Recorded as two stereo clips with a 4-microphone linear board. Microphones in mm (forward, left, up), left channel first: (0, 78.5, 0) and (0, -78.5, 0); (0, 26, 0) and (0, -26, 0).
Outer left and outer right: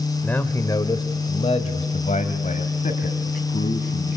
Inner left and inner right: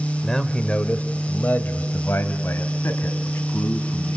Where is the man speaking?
10° left (ahead or behind), 1.0 m; by 4.2 s 60° left (ahead or behind), 3 m.